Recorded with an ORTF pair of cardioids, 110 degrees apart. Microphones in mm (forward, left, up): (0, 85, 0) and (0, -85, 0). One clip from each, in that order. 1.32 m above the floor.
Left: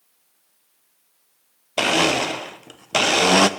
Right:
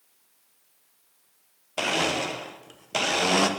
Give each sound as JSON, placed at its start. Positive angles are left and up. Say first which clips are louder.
{"t": 1.8, "sound": "a blender", "louder": "left 7 dB", "azimuth_deg": 30, "distance_m": 0.5}